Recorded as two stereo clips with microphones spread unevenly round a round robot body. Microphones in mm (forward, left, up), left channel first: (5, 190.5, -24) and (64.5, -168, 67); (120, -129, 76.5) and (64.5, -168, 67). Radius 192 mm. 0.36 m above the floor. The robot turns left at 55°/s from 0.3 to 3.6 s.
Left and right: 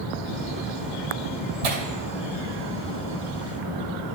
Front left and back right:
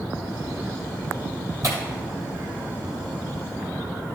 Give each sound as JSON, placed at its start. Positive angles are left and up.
{"t": 1.6, "sound": "tearing paper", "azimuth_deg": -95, "distance_m": 2.5}